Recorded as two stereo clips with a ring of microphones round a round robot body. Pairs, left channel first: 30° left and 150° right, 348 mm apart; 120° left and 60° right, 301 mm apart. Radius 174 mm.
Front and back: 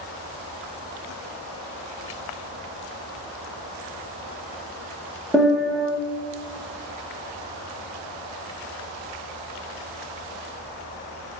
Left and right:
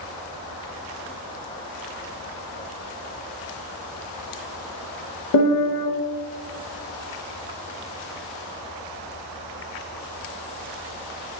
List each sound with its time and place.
5.3 s a piano: 120° left, 0.5 m